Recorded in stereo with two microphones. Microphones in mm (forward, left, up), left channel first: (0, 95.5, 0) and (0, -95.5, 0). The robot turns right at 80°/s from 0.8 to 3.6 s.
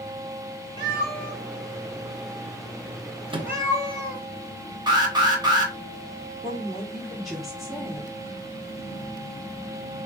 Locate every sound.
0.8 s a cat meowing: 25° right (ahead or behind), 1.9 m; by 4.2 s 20° right (ahead or behind), 1.9 m
3.3 s a microwave: 30° right (ahead or behind), 0.6 m; by 3.5 s 15° right (ahead or behind), 0.6 m
4.9 s an alarm: 25° right (ahead or behind), 1.4 m
6.4 s a woman speaking: centre (ahead or behind), 0.9 m